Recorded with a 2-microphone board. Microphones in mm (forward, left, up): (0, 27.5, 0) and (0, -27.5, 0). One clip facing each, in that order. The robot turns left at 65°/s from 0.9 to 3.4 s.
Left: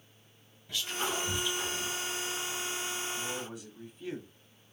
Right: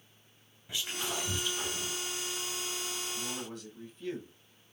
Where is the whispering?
20° right (ahead or behind), 1.7 m; by 2.0 s 15° left (ahead or behind), 1.7 m.